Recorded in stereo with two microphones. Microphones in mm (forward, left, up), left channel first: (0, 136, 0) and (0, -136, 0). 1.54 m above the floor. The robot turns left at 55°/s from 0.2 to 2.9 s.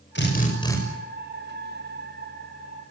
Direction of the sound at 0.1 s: 40° left.